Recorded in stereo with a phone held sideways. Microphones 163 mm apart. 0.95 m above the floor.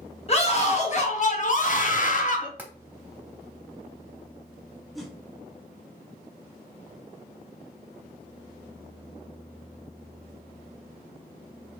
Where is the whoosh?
Centre (ahead or behind), 0.8 m.